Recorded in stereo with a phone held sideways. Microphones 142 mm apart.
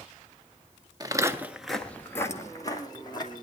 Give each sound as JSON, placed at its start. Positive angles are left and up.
{"t": 1.0, "sound": "footsteps", "side_deg": -30, "distance_m": 1.4}